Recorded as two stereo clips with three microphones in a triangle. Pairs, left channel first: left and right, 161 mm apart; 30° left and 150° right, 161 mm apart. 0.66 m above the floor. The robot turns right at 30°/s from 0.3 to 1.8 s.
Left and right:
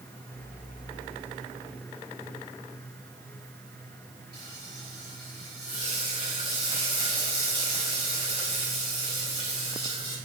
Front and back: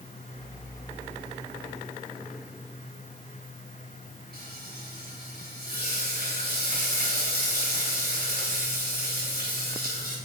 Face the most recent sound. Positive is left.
turn(degrees=-145)